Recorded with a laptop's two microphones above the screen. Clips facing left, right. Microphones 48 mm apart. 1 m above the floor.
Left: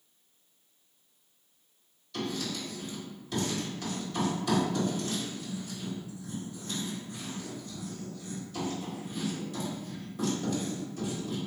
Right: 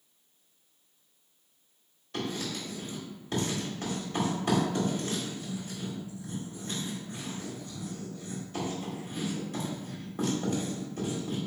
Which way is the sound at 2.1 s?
40° right (ahead or behind).